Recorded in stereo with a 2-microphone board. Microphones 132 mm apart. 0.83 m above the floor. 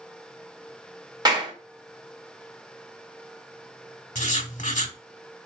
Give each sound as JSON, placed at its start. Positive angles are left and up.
{"t": 1.2, "sound": "a clap", "side_deg": -30, "distance_m": 1.3}
{"t": 4.2, "sound": "writing", "side_deg": 70, "distance_m": 0.9}